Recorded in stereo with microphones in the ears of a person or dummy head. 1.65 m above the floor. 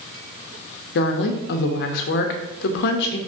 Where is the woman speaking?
65° left (ahead or behind), 0.7 m.